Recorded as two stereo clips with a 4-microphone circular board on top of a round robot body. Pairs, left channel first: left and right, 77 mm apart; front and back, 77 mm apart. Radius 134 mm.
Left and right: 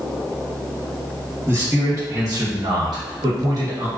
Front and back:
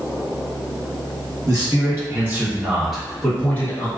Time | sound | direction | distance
1.5 | a man speaking | 140° right | 1.5 m